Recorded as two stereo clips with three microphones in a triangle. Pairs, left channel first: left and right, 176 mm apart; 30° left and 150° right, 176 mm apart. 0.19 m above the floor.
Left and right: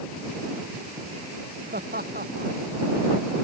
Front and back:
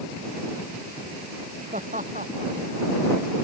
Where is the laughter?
110° right.